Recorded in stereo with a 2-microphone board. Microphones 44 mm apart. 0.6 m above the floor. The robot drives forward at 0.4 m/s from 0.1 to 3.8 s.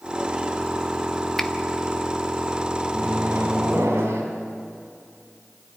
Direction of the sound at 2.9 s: 70° right (ahead or behind).